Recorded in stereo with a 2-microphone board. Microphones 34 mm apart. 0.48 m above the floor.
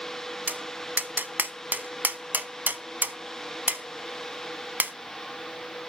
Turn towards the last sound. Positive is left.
turn(degrees=-60)  # may be behind; listen again after turning